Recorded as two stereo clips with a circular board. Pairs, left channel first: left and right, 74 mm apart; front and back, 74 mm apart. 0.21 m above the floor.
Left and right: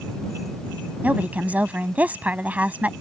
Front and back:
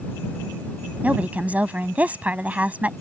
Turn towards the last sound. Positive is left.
turn(degrees=-135)